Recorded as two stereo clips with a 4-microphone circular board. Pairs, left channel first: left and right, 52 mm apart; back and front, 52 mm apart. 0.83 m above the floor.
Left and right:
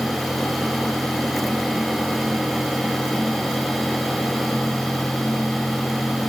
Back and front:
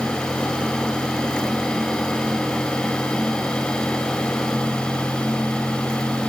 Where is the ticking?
I don't hear ticking.